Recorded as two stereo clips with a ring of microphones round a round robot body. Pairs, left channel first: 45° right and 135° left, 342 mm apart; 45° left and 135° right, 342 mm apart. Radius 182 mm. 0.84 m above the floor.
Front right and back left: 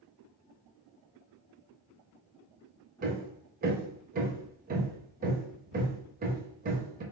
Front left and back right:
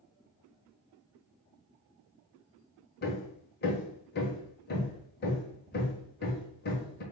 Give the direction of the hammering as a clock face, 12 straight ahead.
9 o'clock.